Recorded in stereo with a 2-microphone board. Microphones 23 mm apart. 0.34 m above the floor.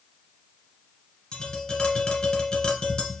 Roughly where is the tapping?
Left.